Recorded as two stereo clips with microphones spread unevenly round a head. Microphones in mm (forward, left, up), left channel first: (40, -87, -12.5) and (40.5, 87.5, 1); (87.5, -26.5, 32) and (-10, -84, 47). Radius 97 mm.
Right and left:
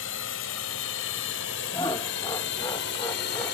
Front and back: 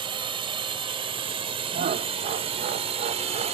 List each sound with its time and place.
0.0 s a drone: 105° right; by 3.5 s 125° right
1.7 s laughter: 160° right